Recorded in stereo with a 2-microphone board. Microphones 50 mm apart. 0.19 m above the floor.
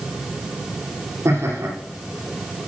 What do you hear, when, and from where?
1.2 s laughter: 75° right (ahead or behind), 8 m